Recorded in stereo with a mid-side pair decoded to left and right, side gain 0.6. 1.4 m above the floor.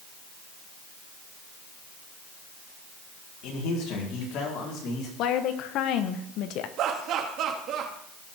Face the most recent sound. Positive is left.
turn(degrees=-60)